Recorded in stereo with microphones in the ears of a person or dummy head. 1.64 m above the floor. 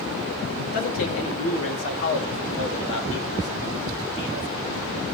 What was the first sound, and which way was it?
A man speaking, 75° left (ahead or behind).